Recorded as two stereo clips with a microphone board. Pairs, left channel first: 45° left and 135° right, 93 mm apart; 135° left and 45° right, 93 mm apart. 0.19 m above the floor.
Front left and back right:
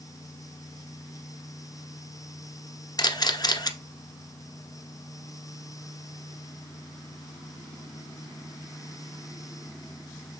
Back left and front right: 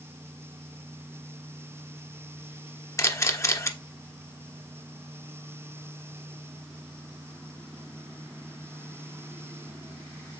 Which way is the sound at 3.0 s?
80° left.